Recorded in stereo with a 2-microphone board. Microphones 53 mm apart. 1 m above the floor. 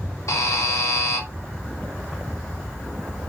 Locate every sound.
0.3 s a buzzer: 75° left (ahead or behind), 2.5 m